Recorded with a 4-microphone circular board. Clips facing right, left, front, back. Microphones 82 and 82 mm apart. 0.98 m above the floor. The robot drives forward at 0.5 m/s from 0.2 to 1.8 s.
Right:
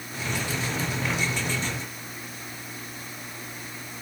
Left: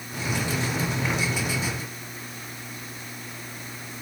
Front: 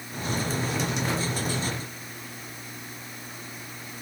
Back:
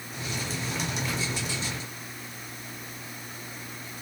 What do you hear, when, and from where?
Only background noise.